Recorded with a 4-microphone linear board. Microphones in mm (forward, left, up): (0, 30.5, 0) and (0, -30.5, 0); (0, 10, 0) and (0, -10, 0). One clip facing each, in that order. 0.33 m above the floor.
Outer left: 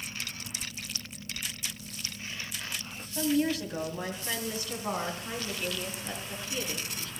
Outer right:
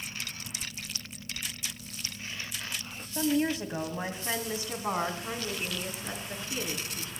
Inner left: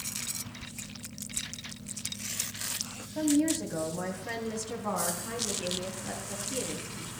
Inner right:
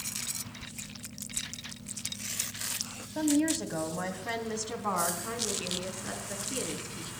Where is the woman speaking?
20° right (ahead or behind), 1.9 m; by 7.1 s 25° right (ahead or behind), 4 m.